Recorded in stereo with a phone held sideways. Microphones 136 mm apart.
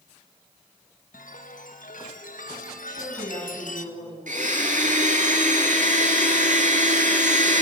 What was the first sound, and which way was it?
A chime, 80° left.